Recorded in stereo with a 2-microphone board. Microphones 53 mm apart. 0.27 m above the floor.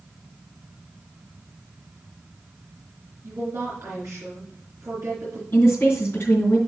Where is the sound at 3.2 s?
60° right (ahead or behind), 4 m.